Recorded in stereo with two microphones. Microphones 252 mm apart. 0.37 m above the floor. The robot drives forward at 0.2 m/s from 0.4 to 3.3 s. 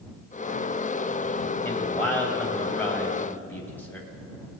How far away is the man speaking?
About 2.5 m.